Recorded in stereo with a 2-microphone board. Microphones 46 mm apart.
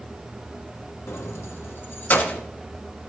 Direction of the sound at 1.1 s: 65° left (ahead or behind).